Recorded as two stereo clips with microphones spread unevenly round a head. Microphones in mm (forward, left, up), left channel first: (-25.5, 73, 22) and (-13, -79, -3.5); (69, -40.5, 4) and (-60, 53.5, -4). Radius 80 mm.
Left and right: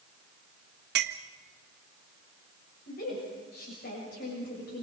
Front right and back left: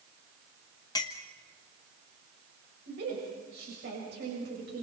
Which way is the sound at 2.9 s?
120° left.